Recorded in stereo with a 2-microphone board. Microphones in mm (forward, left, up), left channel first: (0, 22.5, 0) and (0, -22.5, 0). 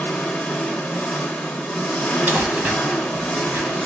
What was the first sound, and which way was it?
An engine running, 20° left (ahead or behind).